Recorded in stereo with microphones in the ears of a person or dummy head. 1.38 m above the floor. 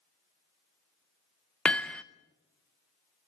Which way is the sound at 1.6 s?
5° left (ahead or behind).